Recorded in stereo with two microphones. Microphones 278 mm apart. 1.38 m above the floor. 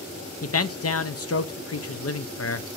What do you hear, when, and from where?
0.4 s a man speaking: 55° left (ahead or behind), 0.5 m